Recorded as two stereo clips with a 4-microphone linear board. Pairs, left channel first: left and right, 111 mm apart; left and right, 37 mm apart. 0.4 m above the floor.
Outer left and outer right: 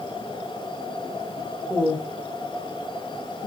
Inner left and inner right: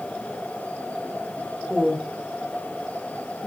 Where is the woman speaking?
5° right (ahead or behind), 1.2 m.